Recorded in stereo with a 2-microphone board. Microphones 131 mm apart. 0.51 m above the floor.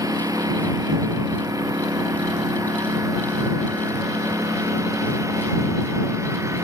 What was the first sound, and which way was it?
A lawn mower, 25° right (ahead or behind).